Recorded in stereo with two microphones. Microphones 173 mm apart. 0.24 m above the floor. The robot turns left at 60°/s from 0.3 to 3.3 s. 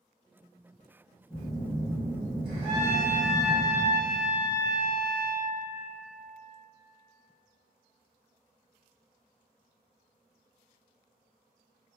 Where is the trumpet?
45° right, 1.8 m; by 5.5 s 85° right, 1.8 m.